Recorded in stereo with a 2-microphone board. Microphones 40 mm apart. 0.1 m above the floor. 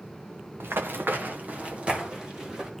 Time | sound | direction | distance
0.6 | running footsteps | 80° right | 1.5 m